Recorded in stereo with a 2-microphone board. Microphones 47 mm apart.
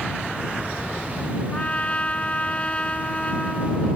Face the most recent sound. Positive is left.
turn(degrees=25)  # may be behind; listen again after turning